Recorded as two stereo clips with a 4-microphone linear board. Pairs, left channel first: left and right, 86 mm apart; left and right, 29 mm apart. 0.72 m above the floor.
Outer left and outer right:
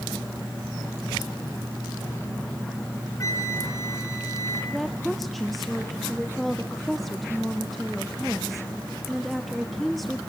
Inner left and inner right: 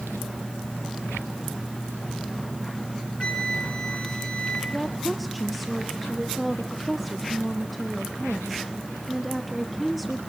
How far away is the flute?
About 3.5 m.